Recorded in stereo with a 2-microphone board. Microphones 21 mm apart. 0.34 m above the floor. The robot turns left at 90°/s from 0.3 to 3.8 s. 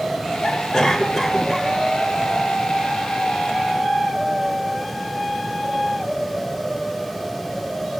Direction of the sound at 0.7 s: 25° left (ahead or behind).